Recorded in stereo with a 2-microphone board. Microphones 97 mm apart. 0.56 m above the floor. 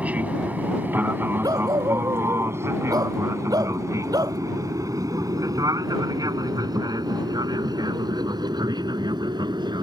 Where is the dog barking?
40° right (ahead or behind).